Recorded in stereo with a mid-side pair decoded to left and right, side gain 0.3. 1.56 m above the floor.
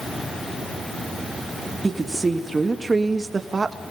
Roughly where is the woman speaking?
Ahead right.